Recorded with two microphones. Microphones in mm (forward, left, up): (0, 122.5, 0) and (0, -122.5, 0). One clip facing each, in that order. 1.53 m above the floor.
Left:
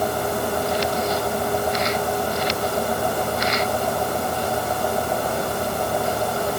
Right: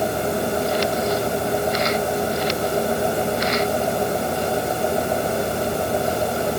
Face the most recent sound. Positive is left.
No sound to turn to.